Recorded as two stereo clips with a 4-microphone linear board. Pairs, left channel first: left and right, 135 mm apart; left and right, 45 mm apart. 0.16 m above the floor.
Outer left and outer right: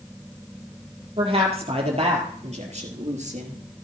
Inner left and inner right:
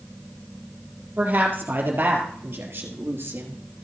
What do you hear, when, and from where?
1.2 s a woman speaking: 45° right (ahead or behind), 4 m; by 3.6 s 60° right (ahead or behind), 2.5 m